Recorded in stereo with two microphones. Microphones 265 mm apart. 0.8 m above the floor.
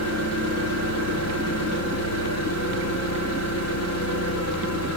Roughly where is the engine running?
Left.